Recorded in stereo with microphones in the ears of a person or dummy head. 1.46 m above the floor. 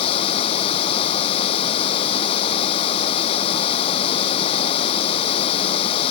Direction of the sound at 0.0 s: 40° left (ahead or behind).